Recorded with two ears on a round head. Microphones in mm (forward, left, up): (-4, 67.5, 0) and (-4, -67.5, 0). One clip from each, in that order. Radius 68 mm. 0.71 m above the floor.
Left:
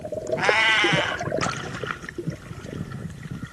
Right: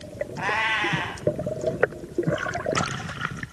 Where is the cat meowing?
70° left (ahead or behind), 1.0 m.